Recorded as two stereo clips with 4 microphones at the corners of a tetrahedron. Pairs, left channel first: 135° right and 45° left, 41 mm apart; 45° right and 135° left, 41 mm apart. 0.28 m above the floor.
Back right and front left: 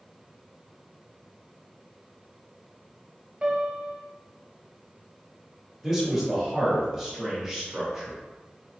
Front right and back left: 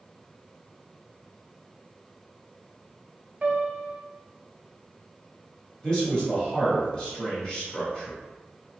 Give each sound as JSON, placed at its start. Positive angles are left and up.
{"t": 3.4, "sound": "a piano", "azimuth_deg": 100, "distance_m": 0.6}
{"t": 5.8, "sound": "a man speaking", "azimuth_deg": -30, "distance_m": 1.5}